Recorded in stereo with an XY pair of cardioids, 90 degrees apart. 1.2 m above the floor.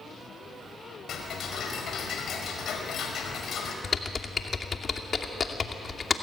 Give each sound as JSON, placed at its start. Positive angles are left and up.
{"t": 1.1, "sound": "ticking", "azimuth_deg": 65, "distance_m": 4.5}
{"t": 3.8, "sound": "typing on a keyboard", "azimuth_deg": 40, "distance_m": 2.5}